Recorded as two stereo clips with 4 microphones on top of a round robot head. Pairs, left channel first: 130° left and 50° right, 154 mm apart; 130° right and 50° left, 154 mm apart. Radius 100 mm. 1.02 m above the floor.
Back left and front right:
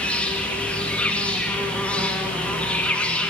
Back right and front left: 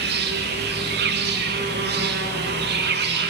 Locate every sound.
0.0 s an insect: 45° left, 1.2 m